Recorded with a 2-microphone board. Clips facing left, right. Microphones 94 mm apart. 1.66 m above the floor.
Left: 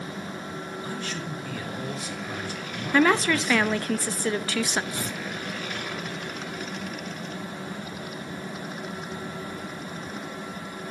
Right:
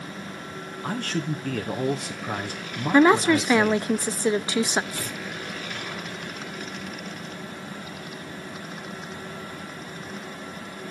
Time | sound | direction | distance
0.8 | a man speaking | 55° right (ahead or behind) | 1.2 m
2.9 | a woman speaking | 20° right (ahead or behind) | 0.6 m
4.9 | tearing paper | 20° left (ahead or behind) | 0.6 m